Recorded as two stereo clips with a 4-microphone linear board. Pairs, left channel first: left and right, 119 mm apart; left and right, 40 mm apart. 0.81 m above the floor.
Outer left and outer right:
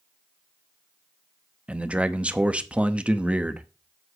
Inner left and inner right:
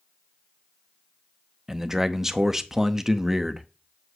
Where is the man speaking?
10° right (ahead or behind), 0.7 m.